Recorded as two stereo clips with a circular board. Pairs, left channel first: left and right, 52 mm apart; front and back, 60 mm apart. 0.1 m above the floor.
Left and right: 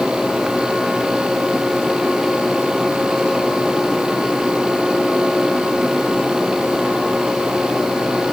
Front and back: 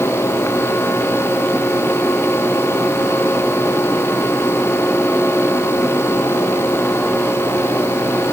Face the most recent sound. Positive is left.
No sound to turn to.